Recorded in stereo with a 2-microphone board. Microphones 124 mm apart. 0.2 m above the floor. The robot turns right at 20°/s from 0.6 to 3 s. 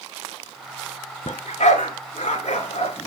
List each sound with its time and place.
1.3 s a dog barking: 70° left (ahead or behind), 1.2 m; by 3.1 s 60° left (ahead or behind), 1.2 m